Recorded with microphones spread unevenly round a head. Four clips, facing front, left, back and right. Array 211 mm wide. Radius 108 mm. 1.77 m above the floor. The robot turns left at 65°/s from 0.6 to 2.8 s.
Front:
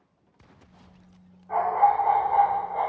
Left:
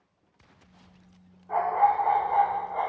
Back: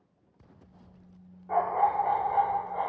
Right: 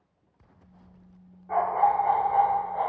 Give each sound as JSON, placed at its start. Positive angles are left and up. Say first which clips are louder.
{"t": 1.5, "sound": "a dog barking", "louder": "even, front 4 dB", "azimuth_deg": -175, "distance_m": 1.9}